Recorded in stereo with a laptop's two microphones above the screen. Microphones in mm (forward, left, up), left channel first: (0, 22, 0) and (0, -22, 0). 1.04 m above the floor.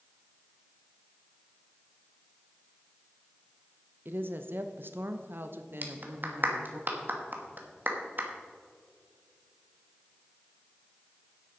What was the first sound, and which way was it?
A woman speaking, 55° right (ahead or behind).